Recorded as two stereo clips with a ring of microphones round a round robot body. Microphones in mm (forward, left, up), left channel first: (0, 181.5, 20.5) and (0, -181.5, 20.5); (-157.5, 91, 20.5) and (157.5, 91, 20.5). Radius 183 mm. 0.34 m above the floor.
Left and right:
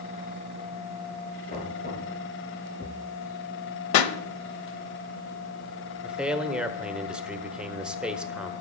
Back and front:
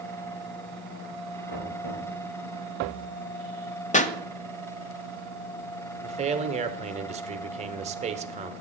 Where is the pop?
115° left, 0.9 m.